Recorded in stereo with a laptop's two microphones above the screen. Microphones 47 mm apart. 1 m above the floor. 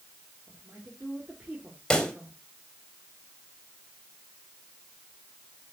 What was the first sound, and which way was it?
A woman speaking, 25° right (ahead or behind).